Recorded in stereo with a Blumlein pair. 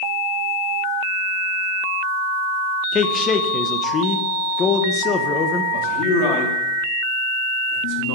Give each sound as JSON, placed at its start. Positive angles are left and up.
{"t": 2.9, "sound": "a man speaking", "azimuth_deg": 25, "distance_m": 0.7}
{"t": 5.7, "sound": "a man speaking", "azimuth_deg": 45, "distance_m": 1.3}